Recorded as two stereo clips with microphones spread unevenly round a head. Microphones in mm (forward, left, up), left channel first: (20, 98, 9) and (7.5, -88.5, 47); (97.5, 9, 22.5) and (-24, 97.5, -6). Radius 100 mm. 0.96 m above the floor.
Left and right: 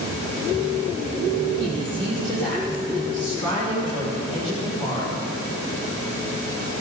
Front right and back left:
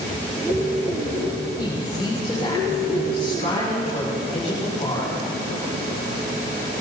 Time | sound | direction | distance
1.6 | a woman speaking | 15° left | 7 m